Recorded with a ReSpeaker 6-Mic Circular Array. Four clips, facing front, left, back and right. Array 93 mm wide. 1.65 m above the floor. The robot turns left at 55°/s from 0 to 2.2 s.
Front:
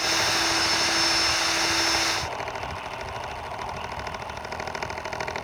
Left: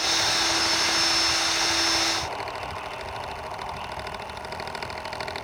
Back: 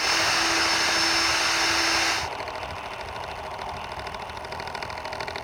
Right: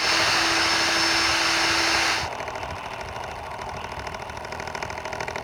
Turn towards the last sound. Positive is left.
No sound to turn to.